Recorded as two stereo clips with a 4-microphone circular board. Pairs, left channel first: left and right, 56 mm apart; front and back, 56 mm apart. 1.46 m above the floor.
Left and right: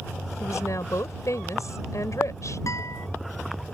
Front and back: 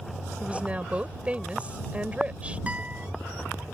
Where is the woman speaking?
110° left.